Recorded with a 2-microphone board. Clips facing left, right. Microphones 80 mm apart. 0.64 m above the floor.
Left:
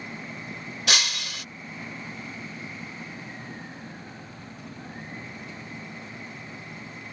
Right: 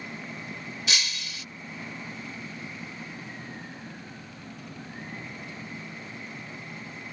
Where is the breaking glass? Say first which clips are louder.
Left 5 dB; 70° left (ahead or behind).